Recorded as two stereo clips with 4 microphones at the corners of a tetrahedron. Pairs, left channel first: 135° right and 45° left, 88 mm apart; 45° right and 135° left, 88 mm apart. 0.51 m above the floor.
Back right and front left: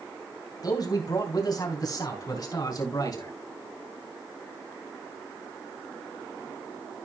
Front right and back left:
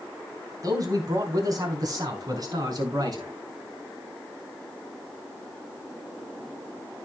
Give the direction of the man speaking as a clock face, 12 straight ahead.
6 o'clock.